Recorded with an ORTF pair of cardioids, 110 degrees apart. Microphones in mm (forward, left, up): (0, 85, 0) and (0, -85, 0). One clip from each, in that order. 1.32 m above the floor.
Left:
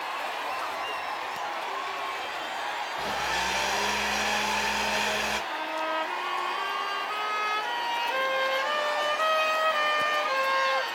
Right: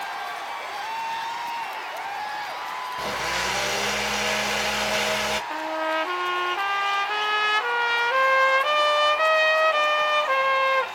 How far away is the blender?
About 1.5 m.